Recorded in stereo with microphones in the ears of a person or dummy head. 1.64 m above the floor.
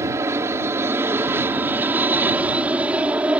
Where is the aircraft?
15° right (ahead or behind); by 3.4 s 5° right (ahead or behind).